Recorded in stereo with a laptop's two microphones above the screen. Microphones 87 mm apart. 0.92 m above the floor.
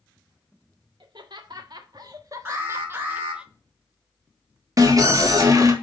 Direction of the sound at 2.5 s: 30° right (ahead or behind).